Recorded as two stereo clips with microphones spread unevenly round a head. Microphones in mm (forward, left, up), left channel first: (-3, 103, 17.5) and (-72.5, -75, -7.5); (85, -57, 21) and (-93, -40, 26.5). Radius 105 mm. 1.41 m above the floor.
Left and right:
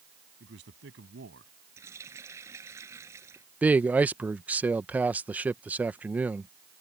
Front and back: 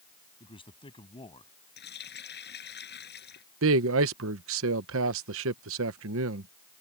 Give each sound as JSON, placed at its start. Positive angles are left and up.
{"t": 0.4, "sound": "a man speaking", "azimuth_deg": -65}
{"t": 1.8, "sound": "a running tap", "azimuth_deg": -30}
{"t": 3.6, "sound": "a man speaking", "azimuth_deg": 165}